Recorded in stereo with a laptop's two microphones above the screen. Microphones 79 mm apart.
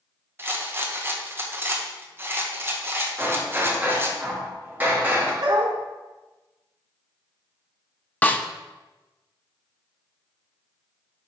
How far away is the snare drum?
About 0.6 m.